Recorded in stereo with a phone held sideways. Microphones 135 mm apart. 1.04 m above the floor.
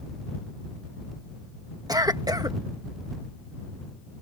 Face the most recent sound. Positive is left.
turn(degrees=-25)  # may be behind; listen again after turning